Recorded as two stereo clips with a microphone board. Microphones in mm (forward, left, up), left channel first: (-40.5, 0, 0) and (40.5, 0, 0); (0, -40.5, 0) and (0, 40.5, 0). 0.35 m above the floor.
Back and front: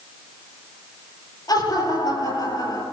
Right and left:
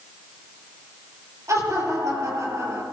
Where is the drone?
I don't hear a drone.